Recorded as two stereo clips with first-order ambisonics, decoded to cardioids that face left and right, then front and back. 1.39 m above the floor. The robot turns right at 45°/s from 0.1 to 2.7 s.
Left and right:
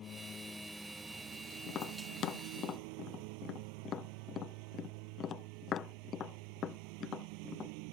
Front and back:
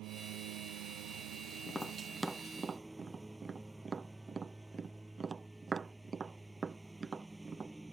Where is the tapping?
75° left; by 7.7 s 120° left.